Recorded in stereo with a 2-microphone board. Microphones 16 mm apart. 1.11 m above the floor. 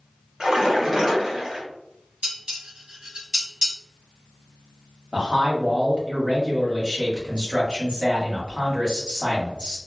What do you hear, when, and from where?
0.4 s a splash: 40° right (ahead or behind), 1.3 m
2.2 s dishes clattering: 75° right (ahead or behind), 1.4 m
5.1 s a man speaking: 50° right (ahead or behind), 1.8 m